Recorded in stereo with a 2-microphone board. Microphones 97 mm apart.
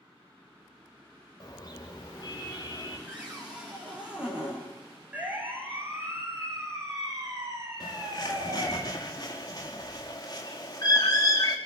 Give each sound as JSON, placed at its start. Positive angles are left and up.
{"t": 1.4, "sound": "a car horn", "side_deg": 40, "distance_m": 7.5}
{"t": 3.1, "sound": "a cupboard door", "side_deg": -10, "distance_m": 9.0}
{"t": 5.1, "sound": "a siren", "side_deg": -15, "distance_m": 6.5}
{"t": 7.8, "sound": "a bird", "side_deg": 40, "distance_m": 6.5}